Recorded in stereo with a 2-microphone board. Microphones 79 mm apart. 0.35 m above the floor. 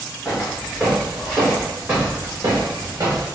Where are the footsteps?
Centre (ahead or behind), 1.9 m; by 3.2 s 50° right (ahead or behind), 1.7 m.